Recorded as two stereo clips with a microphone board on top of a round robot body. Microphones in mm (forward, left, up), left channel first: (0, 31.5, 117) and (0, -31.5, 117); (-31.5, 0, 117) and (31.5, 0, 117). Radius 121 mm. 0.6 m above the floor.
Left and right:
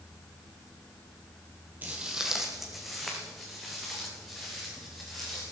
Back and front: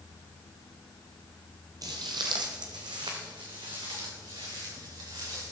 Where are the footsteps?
25° right, 0.6 m; by 5.5 s 5° left, 6 m.